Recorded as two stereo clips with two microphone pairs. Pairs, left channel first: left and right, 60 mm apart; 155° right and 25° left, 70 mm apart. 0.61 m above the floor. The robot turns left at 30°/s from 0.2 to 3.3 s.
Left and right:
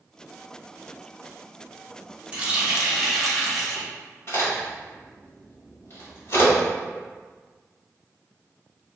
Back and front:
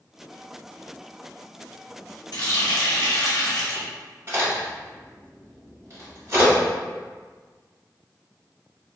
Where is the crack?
70° left, 1.5 m.